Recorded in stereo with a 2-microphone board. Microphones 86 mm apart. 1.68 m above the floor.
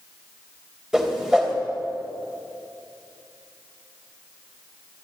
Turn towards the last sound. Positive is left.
turn(degrees=-10)  # may be behind; listen again after turning